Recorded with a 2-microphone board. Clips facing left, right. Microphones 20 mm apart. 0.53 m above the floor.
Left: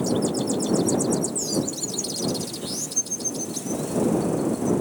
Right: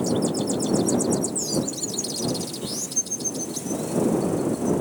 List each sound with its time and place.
Only background noise.